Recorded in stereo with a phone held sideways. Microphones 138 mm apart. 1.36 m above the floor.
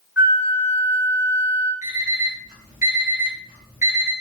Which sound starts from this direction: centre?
A flute, at 0.2 s.